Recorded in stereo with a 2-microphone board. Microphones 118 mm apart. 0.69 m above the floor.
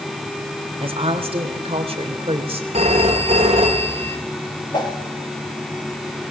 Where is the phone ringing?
60° right (ahead or behind), 4.5 m.